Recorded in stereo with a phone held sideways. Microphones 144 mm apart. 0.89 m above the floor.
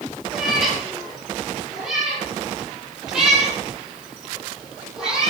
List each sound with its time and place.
0.3 s a cat meowing: centre (ahead or behind), 6.5 m; by 5.3 s 5° right (ahead or behind), 12 m